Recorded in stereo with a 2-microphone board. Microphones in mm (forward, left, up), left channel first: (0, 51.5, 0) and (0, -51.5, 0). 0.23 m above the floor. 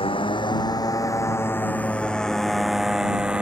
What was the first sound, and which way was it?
A motorcycle, 60° left (ahead or behind).